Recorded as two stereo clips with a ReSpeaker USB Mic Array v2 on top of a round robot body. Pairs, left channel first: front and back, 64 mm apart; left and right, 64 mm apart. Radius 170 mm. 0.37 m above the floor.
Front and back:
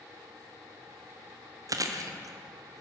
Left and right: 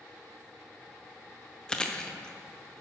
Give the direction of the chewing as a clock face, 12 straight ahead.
7 o'clock.